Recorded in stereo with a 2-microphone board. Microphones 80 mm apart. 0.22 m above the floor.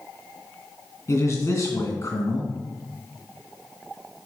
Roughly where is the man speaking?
Left.